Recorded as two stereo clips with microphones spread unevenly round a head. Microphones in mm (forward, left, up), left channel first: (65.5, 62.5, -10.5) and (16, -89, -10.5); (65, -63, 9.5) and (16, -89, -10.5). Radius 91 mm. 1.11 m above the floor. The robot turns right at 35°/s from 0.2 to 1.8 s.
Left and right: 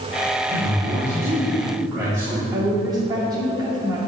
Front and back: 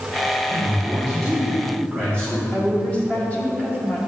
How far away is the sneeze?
I don't hear a sneeze.